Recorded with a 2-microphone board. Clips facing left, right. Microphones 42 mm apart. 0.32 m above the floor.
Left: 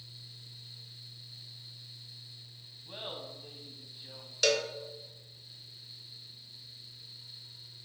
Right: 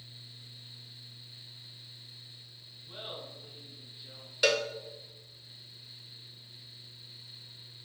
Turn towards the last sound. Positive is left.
turn(degrees=-15)  # may be behind; listen again after turning